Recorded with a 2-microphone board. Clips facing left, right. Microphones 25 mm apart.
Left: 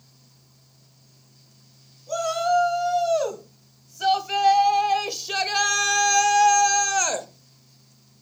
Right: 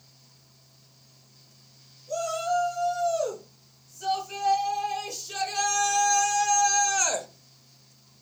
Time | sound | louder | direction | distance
2.1 | a shout | left 5 dB | 60° left (ahead or behind) | 3.5 m